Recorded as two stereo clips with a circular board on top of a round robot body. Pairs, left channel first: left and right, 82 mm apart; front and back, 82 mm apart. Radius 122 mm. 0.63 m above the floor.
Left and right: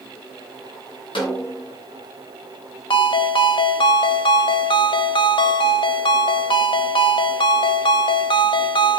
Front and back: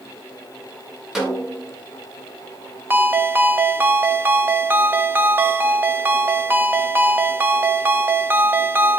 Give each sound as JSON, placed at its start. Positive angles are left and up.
{"t": 1.1, "sound": "a snare drum", "azimuth_deg": 95, "distance_m": 6.0}
{"t": 2.9, "sound": "a ringtone", "azimuth_deg": 115, "distance_m": 1.4}